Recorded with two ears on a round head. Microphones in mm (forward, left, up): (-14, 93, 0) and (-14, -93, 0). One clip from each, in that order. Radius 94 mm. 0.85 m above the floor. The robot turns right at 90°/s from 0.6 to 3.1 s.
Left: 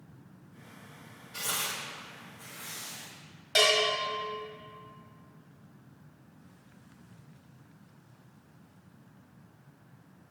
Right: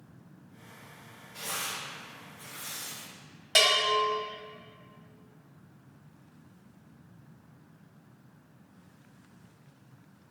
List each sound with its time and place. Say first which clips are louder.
1.3 s tearing paper: left 2 dB; 80° left, 1.7 m; by 3.1 s 70° right (ahead or behind), 1.7 m
3.5 s a bell: right 1 dB; 20° right (ahead or behind), 1.7 m